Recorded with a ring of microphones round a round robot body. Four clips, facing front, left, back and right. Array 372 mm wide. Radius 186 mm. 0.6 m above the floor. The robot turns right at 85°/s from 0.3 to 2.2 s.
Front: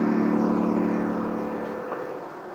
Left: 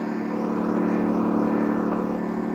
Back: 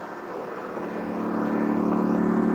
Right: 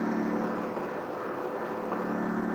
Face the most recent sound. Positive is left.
turn(degrees=170)